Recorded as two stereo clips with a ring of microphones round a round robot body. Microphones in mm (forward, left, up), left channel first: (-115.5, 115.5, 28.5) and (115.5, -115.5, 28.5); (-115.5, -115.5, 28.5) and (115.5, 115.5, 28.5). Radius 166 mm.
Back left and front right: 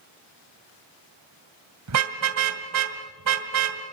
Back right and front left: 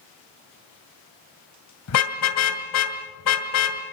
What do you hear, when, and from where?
1.9 s a car horn: 90° right, 2 m